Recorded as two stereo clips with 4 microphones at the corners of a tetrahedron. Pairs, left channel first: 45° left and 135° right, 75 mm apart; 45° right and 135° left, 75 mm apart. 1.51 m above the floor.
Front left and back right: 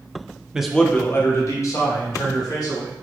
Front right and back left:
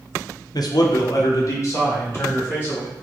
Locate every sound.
0.5 s a man speaking: 55° right, 0.6 m; by 2.9 s 15° left, 2.5 m